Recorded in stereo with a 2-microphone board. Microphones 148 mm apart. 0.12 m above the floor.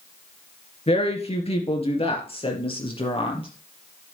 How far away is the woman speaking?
About 2.5 m.